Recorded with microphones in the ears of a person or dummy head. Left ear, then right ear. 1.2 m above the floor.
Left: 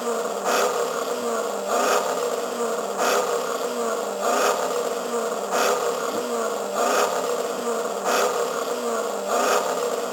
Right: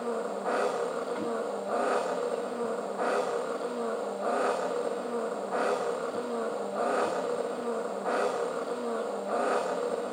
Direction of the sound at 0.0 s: 80° left.